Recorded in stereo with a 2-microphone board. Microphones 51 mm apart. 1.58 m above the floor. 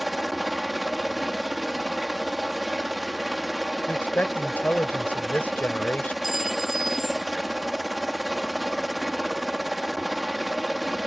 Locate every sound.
0.0 s a helicopter: 5° right (ahead or behind)
3.9 s a man speaking: 35° left (ahead or behind)
6.2 s a clink: 5° right (ahead or behind)